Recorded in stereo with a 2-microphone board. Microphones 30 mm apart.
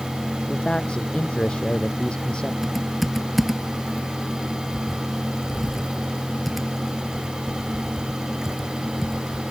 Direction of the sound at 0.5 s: 35° left (ahead or behind).